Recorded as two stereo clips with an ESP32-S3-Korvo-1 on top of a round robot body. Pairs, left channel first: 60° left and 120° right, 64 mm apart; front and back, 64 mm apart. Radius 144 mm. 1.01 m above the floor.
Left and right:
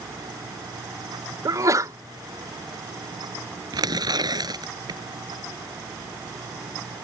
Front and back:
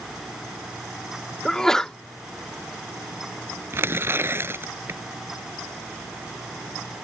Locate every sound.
1.4 s a sneeze: 80° right
3.7 s tearing paper: 125° right